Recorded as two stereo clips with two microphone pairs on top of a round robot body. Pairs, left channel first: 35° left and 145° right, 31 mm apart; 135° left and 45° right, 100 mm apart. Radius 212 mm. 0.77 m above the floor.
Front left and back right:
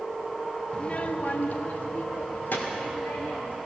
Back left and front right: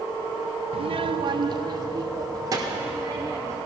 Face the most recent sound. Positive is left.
turn(degrees=15)